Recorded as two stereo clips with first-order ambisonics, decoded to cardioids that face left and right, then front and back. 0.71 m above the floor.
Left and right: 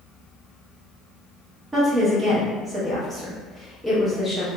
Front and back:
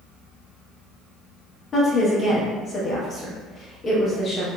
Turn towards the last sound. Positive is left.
turn(degrees=-30)